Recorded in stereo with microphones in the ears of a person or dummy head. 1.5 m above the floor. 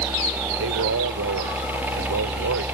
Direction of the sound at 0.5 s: 70° right (ahead or behind).